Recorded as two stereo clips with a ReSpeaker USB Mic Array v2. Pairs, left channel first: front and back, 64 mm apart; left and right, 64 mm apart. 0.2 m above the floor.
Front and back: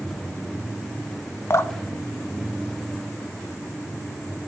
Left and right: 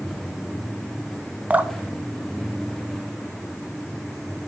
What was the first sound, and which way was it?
Dripping, 30° right.